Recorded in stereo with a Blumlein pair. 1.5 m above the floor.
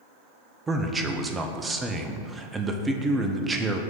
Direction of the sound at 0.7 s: 15° right.